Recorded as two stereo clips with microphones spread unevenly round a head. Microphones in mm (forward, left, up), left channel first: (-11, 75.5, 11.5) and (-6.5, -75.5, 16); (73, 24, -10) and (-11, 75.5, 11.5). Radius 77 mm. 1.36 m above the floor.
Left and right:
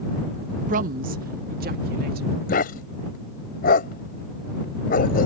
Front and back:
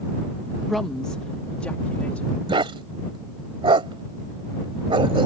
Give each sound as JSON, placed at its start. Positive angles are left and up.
{"t": 0.7, "sound": "a woman speaking", "azimuth_deg": -125}
{"t": 2.5, "sound": "a dog barking", "azimuth_deg": 125}